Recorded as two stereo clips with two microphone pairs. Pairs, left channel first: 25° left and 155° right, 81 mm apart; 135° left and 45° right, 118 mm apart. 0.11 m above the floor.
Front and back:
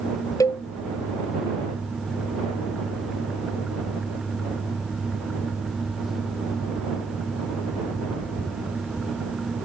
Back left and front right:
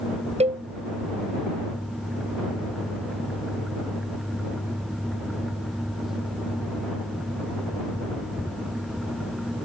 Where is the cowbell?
15° right.